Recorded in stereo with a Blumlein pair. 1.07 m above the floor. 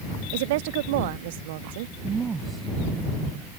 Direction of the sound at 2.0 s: 20° right.